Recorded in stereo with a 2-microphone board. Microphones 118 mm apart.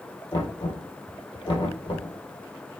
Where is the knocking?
40° left (ahead or behind), 3.5 m.